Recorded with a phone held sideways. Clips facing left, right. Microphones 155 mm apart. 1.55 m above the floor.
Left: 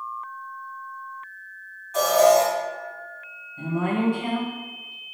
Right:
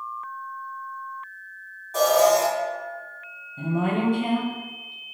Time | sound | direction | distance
1.9 | an alarm | 30° right (ahead or behind) | 1.8 m
3.6 | a woman speaking | 20° right (ahead or behind) | 0.5 m